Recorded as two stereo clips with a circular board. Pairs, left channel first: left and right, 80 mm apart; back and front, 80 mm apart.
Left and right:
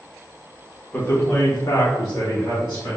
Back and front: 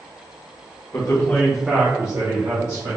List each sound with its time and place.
0.9 s a man speaking: 150° left, 0.9 m; by 3.0 s 25° left, 1.8 m